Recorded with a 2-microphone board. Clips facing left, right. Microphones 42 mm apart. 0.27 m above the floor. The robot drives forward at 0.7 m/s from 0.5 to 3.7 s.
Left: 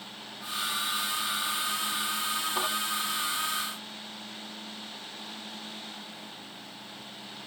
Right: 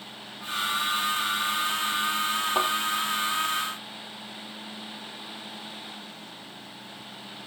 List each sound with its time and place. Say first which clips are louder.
2.5 s a thud: right 6 dB; 55° right (ahead or behind), 5 m; by 2.7 s 50° right (ahead or behind), 5 m